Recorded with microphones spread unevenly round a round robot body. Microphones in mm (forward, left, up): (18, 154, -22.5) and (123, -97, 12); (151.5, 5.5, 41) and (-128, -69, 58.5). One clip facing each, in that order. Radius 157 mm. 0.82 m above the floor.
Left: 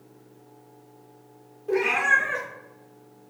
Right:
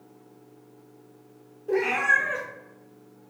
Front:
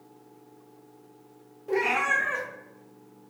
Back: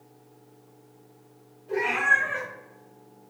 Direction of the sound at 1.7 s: 25° left.